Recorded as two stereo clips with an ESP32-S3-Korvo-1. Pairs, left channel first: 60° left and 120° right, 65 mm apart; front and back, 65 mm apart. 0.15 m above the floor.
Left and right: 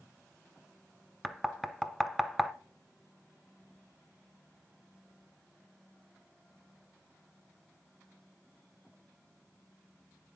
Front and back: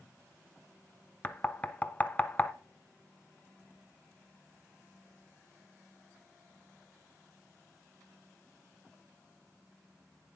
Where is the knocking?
25° right, 0.7 m.